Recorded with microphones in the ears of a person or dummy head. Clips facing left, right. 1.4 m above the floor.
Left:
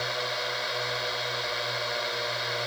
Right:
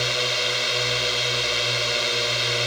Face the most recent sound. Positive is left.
turn(degrees=-40)  # may be behind; listen again after turning